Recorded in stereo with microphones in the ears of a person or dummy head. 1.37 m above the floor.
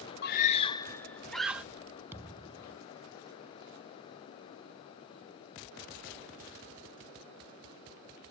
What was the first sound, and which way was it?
A scream, 60° left (ahead or behind).